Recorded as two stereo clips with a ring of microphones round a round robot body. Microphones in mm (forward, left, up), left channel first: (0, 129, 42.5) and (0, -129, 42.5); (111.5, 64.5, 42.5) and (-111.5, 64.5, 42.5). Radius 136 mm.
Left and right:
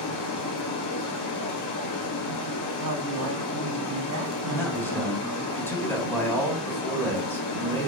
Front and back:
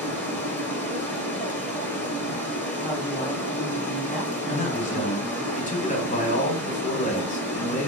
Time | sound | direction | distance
0.0 | running water | 80° left | 1.9 m
2.8 | a woman speaking | 80° right | 2.5 m
4.5 | a man speaking | 15° left | 1.7 m